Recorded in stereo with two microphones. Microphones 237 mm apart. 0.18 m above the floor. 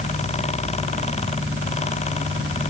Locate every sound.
Only background noise.